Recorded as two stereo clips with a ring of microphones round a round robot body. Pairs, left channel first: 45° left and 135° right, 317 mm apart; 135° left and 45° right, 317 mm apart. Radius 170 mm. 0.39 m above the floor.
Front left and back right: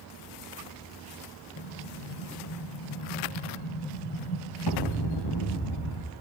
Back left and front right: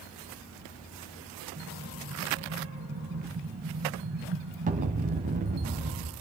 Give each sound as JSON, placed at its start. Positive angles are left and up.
{"t": 1.6, "sound": "an explosion", "azimuth_deg": 20, "distance_m": 1.5}